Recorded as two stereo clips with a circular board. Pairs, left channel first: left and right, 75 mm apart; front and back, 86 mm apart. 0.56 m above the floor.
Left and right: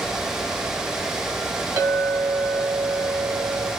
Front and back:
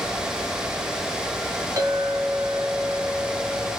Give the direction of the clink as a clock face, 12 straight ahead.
4 o'clock.